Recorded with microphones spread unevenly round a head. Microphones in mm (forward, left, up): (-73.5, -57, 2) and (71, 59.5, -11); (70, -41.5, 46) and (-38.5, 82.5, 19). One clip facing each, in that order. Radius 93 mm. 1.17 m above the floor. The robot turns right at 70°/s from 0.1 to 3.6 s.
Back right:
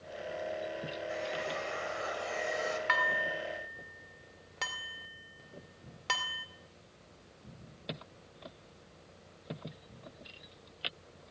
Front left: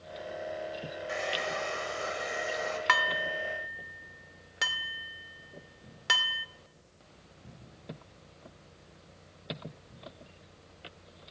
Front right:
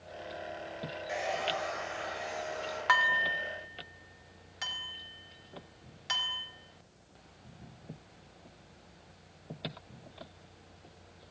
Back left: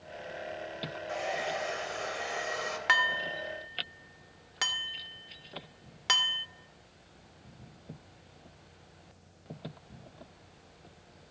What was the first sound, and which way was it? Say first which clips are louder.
A hair dryer: front left 4 dB, even; 25° left.